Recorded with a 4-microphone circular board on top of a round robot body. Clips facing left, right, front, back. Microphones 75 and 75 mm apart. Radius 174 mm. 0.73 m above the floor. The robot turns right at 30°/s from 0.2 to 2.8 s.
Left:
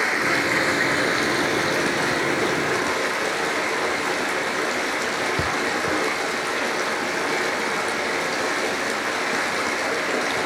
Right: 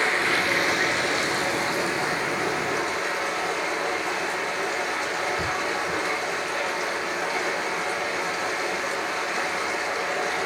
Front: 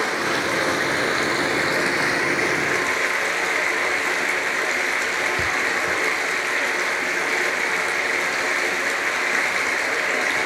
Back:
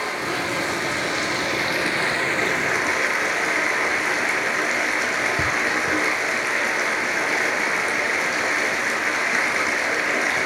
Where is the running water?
20° left, 2.5 m; by 10.5 s 95° left, 2.5 m.